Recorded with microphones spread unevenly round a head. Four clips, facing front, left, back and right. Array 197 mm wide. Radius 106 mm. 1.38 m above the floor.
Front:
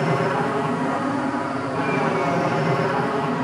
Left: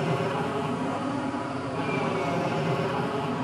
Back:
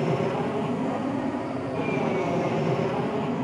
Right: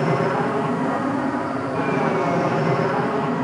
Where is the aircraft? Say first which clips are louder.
Right 7 dB, front 4 dB; 60° right.